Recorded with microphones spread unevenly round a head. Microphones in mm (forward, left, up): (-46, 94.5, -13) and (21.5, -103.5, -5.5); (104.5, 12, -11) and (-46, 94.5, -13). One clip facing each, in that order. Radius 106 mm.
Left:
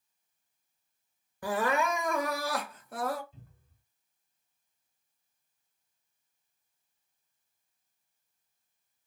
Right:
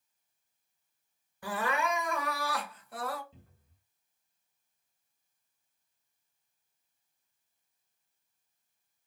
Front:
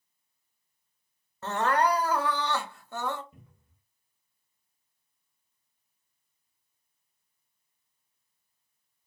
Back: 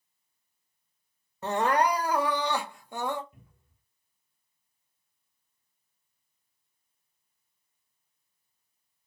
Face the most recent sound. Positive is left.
turn(degrees=-45)